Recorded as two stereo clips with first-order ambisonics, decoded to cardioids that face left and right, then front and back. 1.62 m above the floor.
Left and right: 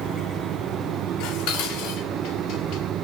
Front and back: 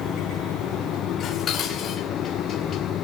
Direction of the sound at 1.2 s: 60° left.